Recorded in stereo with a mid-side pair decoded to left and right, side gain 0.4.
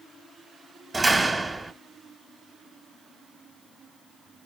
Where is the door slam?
25° right, 1.8 m.